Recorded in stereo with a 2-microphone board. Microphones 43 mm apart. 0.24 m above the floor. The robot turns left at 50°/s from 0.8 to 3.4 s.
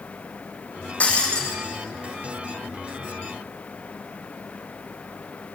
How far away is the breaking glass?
About 5.5 m.